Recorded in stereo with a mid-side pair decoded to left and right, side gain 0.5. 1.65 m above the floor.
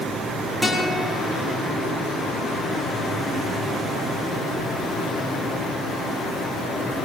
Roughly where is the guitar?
Ahead.